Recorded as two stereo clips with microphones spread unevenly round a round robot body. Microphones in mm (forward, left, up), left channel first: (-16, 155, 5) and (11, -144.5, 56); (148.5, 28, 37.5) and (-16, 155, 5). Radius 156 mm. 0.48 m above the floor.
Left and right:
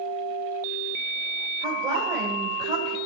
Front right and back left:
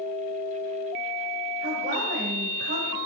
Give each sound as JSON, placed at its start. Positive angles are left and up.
{"t": 1.6, "sound": "a woman speaking", "azimuth_deg": -165, "distance_m": 2.5}